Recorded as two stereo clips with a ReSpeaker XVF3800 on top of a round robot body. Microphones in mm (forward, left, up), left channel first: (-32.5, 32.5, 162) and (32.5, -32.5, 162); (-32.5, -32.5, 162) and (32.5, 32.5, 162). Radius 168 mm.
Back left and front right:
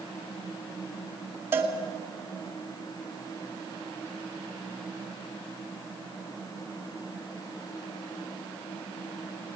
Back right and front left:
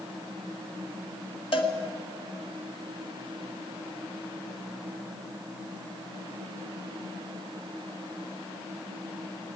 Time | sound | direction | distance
1.5 | a cowbell | 110° right | 2 m